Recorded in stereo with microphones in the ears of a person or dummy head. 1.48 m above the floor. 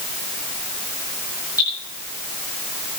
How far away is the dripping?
About 9.5 m.